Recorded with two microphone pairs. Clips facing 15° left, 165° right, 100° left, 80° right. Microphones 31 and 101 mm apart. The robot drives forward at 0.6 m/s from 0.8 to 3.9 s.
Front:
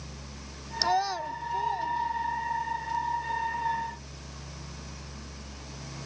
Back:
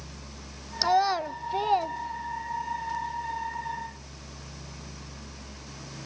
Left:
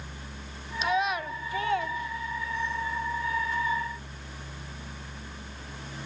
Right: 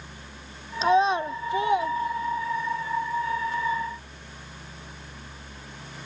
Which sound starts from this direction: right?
A child speaking, at 0.8 s.